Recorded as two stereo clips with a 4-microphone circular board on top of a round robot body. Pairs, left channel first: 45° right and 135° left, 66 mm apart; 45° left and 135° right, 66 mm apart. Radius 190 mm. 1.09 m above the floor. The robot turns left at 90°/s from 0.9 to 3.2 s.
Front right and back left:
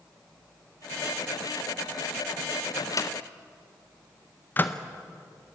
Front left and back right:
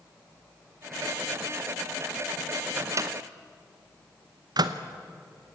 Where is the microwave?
70° right, 0.8 m; by 4.8 s 110° right, 0.8 m.